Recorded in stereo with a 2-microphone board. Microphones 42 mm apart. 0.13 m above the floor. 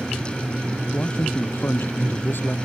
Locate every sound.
0.9 s a man speaking: 60° left (ahead or behind)